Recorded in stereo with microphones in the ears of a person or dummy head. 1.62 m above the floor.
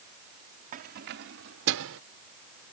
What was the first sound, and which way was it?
Keys jangling, 45° right (ahead or behind).